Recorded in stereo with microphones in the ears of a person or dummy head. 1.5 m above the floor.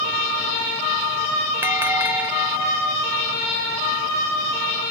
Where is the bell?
15° right (ahead or behind).